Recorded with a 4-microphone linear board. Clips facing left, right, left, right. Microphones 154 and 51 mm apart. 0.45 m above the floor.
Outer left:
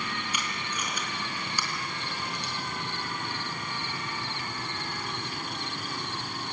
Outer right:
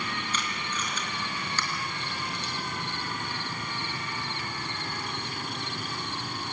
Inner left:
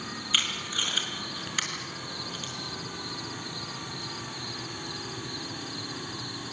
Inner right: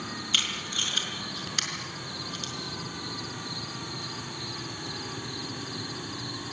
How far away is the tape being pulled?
About 4 m.